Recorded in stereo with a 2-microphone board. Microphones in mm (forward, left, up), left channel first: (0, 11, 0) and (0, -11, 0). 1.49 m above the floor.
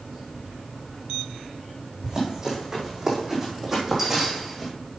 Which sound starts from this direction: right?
Running footsteps, at 2.0 s.